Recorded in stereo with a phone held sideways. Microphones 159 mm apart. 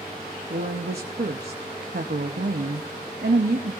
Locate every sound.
0.5 s a woman speaking: 85° right, 0.9 m